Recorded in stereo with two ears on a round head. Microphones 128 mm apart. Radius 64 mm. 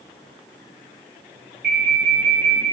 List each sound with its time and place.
1.6 s an alarm: 70° right (ahead or behind), 2.5 m